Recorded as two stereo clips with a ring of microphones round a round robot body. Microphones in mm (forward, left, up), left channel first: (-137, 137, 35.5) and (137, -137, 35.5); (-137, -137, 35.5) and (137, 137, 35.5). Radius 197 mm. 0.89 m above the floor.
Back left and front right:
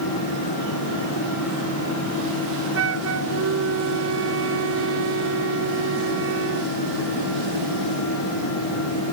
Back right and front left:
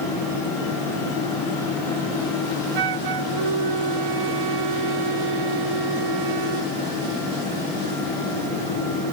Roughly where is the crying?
I don't hear crying.